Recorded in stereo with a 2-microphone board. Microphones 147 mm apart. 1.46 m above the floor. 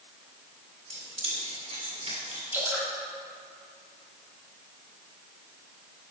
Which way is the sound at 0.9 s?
50° right (ahead or behind).